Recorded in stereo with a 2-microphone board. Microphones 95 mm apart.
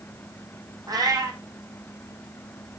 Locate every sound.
0.9 s a cat meowing: 45° right (ahead or behind), 1.9 m